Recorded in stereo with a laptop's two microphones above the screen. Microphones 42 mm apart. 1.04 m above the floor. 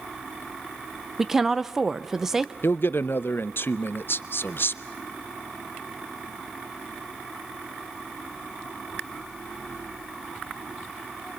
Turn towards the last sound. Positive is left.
turn(degrees=60)  # may be behind; listen again after turning